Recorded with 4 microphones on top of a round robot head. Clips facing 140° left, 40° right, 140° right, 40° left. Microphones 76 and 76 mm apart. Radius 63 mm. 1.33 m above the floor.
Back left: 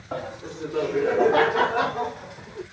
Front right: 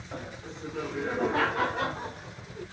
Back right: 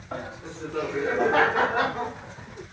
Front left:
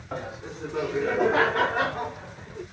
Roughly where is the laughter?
Behind left.